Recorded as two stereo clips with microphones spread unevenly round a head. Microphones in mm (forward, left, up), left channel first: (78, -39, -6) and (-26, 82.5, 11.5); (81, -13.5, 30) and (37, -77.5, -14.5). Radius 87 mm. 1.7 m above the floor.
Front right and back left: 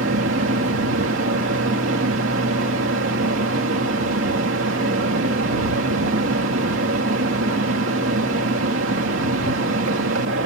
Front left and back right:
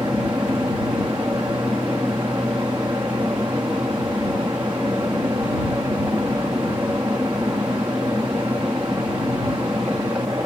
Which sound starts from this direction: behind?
A fan, at 0.0 s.